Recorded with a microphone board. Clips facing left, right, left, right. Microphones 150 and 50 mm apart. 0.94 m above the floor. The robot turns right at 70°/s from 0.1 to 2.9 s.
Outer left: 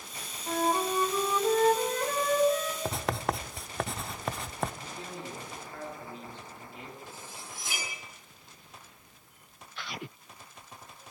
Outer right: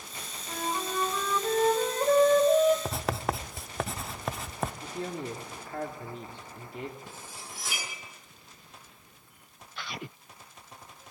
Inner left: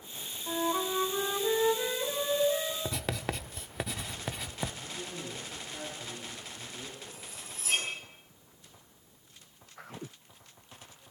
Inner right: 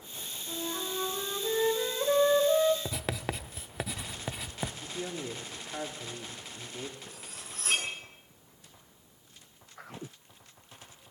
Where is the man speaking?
65° right (ahead or behind), 2 m.